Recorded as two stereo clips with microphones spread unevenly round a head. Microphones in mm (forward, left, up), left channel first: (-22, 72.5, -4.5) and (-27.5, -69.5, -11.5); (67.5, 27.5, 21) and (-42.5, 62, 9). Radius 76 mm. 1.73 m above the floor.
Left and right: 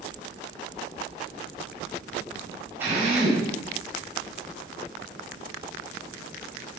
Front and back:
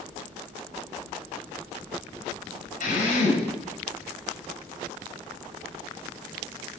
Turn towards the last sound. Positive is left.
turn(degrees=-15)